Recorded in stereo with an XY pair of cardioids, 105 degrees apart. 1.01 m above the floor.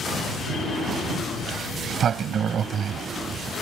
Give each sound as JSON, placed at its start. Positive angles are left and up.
{"t": 1.4, "sound": "a sliding door", "azimuth_deg": -55}